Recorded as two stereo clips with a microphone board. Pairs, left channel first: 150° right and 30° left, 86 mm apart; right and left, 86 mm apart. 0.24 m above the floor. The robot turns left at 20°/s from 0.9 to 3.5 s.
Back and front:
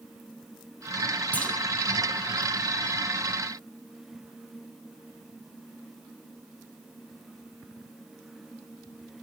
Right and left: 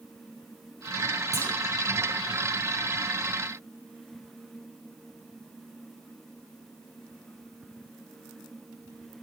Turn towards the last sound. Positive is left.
turn(degrees=95)